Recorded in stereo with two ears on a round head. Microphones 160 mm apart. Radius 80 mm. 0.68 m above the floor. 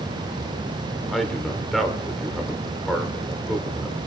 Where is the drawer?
I don't hear a drawer.